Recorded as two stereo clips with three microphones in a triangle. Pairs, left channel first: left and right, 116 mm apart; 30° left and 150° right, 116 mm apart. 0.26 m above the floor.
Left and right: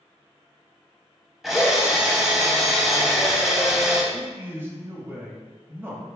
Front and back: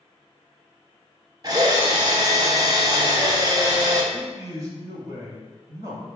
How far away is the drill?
About 0.8 m.